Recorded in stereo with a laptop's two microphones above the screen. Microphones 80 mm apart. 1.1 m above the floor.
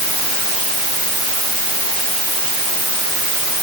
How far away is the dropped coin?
I don't hear a dropped coin.